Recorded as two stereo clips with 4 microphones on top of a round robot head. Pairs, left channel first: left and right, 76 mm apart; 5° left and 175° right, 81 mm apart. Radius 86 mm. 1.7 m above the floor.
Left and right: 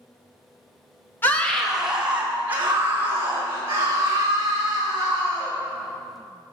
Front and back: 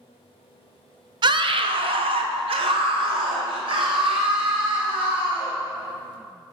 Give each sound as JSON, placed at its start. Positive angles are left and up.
{"t": 1.2, "sound": "a scream", "azimuth_deg": 160, "distance_m": 0.6}